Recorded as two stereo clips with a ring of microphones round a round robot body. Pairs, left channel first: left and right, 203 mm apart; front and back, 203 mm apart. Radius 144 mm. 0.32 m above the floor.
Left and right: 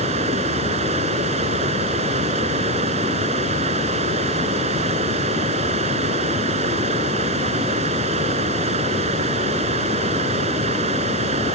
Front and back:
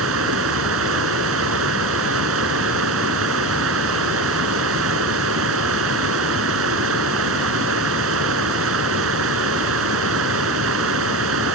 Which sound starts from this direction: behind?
Running water, at 0.0 s.